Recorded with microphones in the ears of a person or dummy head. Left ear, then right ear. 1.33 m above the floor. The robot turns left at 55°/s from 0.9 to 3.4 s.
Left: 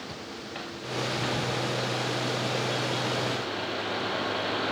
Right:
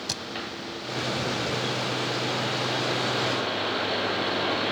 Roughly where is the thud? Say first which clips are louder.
Right 8 dB; right.